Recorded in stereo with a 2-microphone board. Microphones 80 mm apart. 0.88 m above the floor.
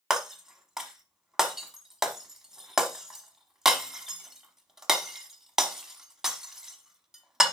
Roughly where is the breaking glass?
Centre.